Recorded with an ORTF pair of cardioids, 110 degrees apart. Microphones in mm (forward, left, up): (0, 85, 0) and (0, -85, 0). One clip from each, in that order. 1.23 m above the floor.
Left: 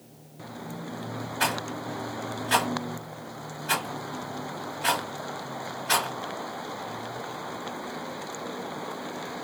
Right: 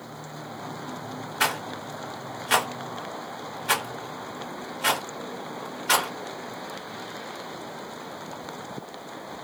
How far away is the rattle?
About 1.2 m.